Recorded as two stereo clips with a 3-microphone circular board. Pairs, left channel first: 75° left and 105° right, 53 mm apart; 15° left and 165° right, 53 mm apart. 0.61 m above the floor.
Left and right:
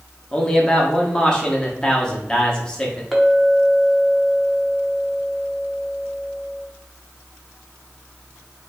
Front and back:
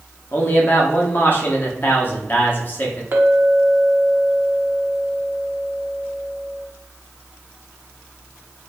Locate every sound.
0.3 s a man speaking: 10° left, 1.0 m
3.1 s a clink: 165° left, 0.9 m